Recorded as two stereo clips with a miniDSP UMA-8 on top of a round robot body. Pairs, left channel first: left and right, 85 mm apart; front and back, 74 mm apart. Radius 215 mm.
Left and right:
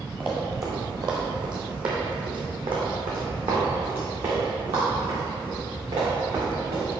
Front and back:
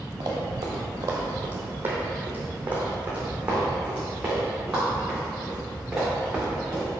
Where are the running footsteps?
160° right, 1.0 m; by 6.9 s 100° right, 5 m.